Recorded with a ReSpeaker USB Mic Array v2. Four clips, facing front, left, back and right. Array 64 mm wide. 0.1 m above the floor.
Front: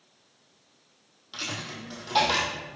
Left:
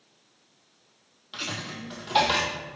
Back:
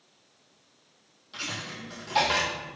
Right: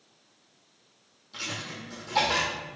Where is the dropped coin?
75° left, 1.2 m.